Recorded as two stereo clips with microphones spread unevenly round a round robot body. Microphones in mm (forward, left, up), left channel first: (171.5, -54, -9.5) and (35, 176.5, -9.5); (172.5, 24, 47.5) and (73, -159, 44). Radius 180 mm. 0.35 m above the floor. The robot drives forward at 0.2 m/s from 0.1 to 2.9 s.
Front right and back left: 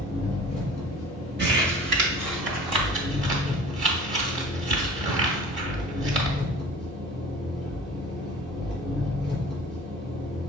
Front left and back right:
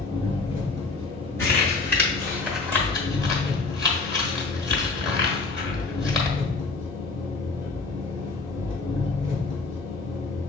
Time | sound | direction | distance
0.0 | an engine running | 165° right | 2.5 m
1.4 | crumpling | 130° left | 1.0 m